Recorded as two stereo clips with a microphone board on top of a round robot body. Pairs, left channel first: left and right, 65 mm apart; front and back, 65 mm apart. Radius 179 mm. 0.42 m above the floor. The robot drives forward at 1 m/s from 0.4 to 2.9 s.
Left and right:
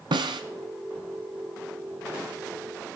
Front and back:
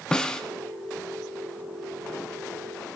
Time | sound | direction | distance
0.1 | a snare drum | 80° right | 0.8 m